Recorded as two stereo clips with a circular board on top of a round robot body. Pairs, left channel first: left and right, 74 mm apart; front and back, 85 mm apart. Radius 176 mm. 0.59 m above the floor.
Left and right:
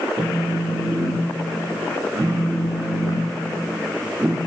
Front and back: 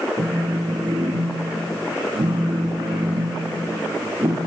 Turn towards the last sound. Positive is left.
turn(degrees=-145)